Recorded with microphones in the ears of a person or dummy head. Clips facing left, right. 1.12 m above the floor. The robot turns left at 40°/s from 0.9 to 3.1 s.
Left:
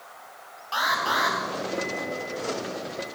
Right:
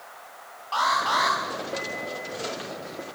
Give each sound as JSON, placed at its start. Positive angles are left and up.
{"t": 0.7, "sound": "an alarm", "side_deg": 15, "distance_m": 5.0}